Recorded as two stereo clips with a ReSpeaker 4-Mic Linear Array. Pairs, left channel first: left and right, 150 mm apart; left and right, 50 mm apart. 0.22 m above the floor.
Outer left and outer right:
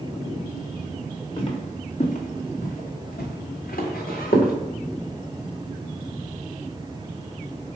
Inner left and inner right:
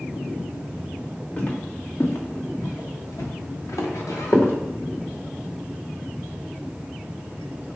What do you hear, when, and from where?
1.4 s footsteps: 35° left (ahead or behind), 1.2 m; by 4.5 s 70° left (ahead or behind), 1.9 m